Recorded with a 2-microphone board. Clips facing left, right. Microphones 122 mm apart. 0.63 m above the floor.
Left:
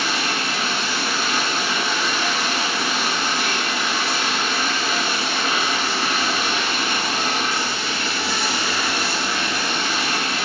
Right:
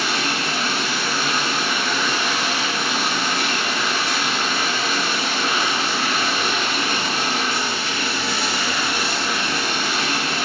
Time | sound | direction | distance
0.0 | running water | 70° right (ahead or behind) | 1.6 m